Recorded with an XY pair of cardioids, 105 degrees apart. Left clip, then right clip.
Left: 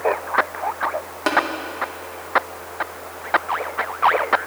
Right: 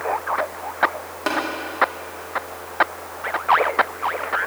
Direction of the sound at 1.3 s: 15° left.